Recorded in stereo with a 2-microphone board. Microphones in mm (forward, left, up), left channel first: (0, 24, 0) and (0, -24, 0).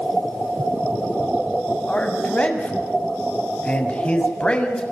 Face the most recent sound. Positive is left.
turn(degrees=25)  # may be behind; listen again after turning